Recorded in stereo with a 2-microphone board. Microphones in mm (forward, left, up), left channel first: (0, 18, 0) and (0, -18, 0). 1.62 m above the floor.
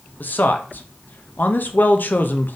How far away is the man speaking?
About 0.6 m.